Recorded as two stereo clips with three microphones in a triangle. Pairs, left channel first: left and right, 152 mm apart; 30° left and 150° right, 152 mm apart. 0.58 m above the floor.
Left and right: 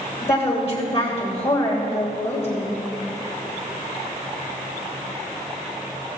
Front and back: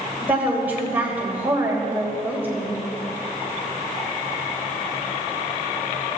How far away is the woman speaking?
About 3 m.